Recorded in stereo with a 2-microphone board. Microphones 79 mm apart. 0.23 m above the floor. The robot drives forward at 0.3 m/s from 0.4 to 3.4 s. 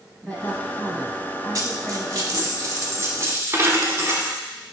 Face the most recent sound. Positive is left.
turn(degrees=-40)  # may be behind; listen again after turning